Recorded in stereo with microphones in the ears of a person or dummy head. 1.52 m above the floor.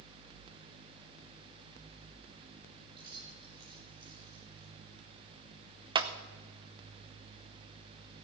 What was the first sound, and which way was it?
Keys jangling, 25° right (ahead or behind).